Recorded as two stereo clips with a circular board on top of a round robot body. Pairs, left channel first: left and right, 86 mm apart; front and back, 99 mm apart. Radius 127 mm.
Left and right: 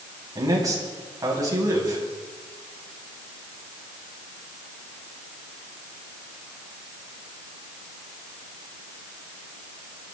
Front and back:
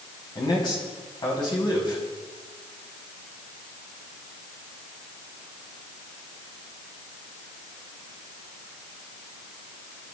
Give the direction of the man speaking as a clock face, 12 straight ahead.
1 o'clock.